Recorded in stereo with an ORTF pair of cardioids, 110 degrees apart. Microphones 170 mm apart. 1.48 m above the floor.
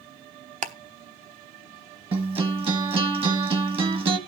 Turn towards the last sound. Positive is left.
turn(degrees=-35)